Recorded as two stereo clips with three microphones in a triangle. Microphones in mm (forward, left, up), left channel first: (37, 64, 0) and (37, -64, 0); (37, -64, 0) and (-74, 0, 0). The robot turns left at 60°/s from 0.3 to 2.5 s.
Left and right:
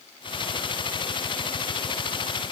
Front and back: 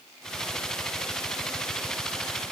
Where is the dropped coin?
I don't hear a dropped coin.